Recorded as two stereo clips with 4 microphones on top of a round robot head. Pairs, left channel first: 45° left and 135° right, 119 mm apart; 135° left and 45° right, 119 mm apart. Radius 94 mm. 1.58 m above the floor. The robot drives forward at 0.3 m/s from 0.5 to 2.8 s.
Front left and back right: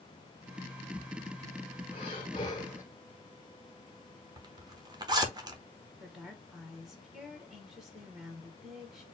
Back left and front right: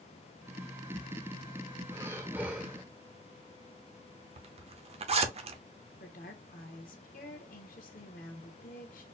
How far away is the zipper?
About 0.8 m.